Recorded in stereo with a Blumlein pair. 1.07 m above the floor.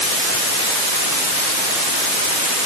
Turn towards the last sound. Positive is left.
No sound to turn to.